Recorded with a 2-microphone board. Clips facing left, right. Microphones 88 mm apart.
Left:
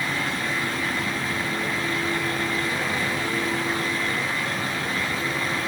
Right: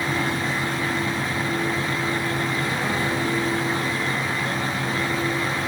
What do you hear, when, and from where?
Only background noise.